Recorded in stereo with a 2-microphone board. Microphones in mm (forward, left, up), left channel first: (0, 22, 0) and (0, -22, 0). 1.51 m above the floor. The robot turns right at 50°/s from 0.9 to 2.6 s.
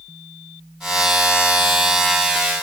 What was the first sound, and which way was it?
Only background noise.